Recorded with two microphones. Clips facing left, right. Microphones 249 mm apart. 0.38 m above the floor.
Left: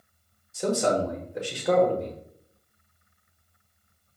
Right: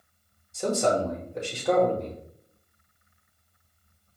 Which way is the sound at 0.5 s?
5° left (ahead or behind).